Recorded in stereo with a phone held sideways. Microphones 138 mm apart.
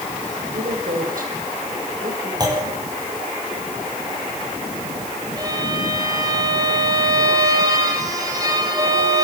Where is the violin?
25° right (ahead or behind), 7.5 m.